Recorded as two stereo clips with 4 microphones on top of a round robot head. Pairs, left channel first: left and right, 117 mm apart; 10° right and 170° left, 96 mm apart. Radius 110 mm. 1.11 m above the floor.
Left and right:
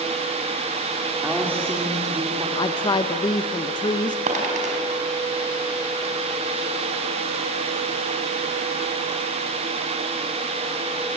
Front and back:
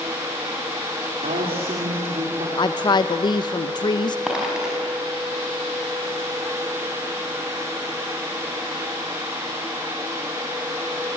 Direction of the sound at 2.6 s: 35° left.